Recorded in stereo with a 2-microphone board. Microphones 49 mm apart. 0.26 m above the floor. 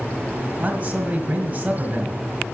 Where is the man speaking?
35° right (ahead or behind), 1.5 m.